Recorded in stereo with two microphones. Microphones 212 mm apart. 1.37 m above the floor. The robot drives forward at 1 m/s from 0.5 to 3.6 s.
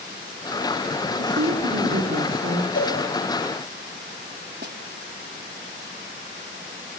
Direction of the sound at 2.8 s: 80° left.